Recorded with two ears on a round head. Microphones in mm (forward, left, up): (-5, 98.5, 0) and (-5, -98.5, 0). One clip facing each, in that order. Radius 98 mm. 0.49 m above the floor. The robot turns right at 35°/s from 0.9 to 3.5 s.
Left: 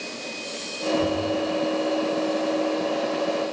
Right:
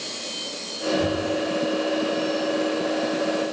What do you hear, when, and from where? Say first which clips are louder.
1.0 s knocking: even; centre (ahead or behind), 9.5 m; by 1.4 s 15° left (ahead or behind), 9.5 m